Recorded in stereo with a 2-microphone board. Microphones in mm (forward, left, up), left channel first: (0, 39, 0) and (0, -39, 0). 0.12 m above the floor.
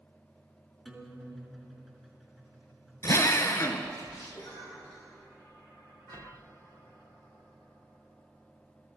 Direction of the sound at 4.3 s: 45° left (ahead or behind).